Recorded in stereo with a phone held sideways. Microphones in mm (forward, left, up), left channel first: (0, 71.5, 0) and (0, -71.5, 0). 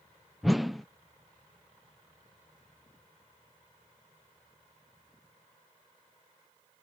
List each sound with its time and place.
0.4 s a whoosh: centre (ahead or behind)